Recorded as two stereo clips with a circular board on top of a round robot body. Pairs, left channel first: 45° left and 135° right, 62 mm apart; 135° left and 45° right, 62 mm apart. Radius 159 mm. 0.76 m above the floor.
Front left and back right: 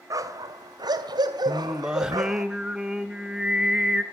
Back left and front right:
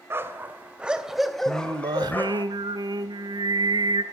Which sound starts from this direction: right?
A dog barking, at 0.1 s.